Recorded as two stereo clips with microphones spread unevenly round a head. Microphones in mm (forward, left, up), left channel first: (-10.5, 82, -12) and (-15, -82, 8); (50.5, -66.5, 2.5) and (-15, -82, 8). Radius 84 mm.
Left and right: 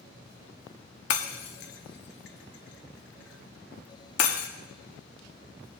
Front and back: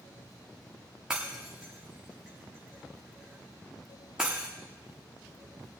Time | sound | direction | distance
1.1 | breaking glass | 110° left | 1.1 m